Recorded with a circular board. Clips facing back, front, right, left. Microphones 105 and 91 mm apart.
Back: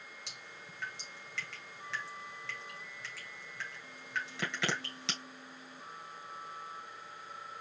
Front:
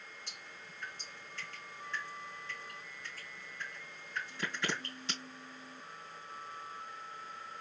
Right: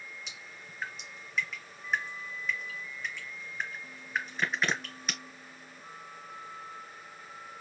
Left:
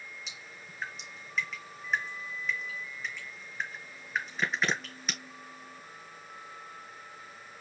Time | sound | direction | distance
0.3 | dripping | straight behind | 3 m